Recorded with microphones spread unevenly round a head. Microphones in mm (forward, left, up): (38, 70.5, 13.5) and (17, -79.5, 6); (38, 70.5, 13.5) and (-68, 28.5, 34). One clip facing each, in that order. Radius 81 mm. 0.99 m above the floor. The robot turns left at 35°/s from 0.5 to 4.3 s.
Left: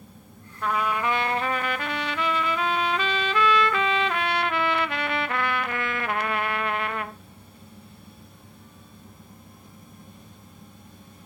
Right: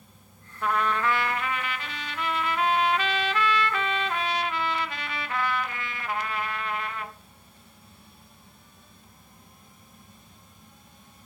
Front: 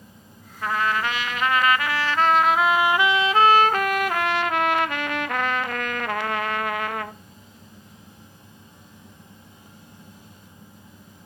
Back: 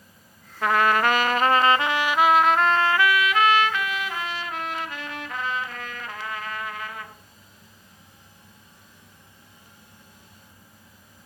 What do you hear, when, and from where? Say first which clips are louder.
0.6 s a trumpet: even, back 4 dB; 175° left, 0.7 m; by 7.2 s 45° left, 0.7 m